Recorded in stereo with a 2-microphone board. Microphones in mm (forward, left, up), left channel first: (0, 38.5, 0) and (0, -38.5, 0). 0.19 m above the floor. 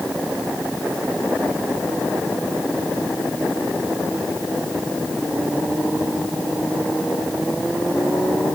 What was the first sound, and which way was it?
Only background noise.